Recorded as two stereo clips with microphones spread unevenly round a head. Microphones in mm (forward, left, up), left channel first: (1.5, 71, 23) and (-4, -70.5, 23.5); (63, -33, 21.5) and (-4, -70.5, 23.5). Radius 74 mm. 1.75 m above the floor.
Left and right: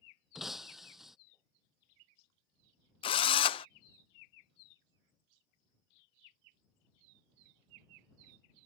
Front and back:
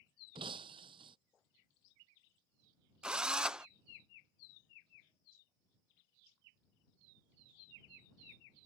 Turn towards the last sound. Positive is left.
turn(degrees=130)